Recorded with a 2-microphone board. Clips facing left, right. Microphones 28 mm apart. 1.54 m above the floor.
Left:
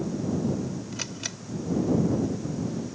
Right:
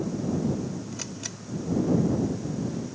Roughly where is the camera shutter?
Left.